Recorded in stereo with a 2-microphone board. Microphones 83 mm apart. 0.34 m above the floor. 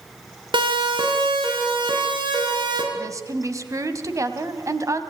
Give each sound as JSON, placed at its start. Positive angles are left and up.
{"t": 0.5, "sound": "a siren", "side_deg": -75, "distance_m": 4.0}
{"t": 2.9, "sound": "a woman speaking", "side_deg": -40, "distance_m": 2.5}